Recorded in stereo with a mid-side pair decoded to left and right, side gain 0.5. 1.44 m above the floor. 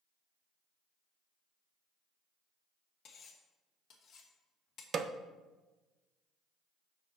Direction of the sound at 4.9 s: 45° right.